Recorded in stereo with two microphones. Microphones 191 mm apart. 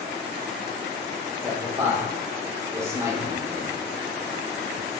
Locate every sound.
1.4 s a man speaking: 15° right (ahead or behind), 0.9 m